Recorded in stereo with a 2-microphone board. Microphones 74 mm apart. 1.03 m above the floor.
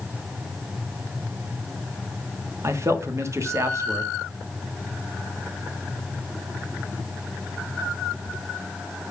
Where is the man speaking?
40° right (ahead or behind), 1.2 m.